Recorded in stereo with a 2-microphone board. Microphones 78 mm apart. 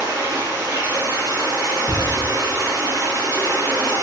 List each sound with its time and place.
0.0 s running water: 45° right (ahead or behind), 1.8 m
1.9 s ticking: 35° right (ahead or behind), 1.0 m